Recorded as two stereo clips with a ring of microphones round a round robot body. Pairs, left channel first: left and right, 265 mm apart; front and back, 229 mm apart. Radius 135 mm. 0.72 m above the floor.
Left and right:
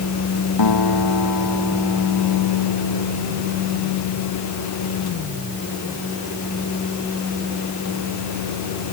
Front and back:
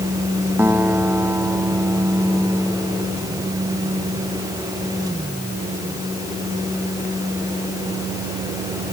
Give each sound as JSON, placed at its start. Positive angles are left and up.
{"t": 0.6, "sound": "a guitar", "azimuth_deg": 100}